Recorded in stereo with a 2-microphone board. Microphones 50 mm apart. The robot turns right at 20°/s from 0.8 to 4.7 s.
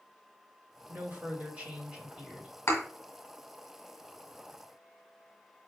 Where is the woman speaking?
40° right, 2 m; by 2.5 s 10° right, 2 m.